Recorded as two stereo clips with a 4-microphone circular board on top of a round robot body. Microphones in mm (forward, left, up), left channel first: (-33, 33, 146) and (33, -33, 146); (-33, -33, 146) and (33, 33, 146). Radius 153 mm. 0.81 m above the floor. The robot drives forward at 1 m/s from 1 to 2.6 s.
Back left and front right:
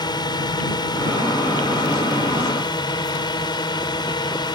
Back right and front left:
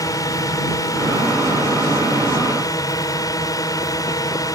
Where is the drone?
175° left.